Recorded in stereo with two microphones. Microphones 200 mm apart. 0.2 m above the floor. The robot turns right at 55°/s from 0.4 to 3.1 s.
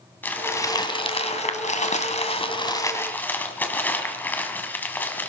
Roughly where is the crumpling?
Ahead.